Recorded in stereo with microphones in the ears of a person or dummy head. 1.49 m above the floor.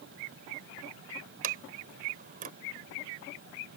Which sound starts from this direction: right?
A sliding door, at 1.4 s.